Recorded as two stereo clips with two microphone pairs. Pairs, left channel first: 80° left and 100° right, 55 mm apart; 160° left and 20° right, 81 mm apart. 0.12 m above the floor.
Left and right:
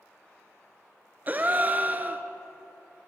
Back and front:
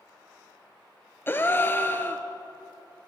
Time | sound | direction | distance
1.3 | a gasp | 145° right | 0.7 m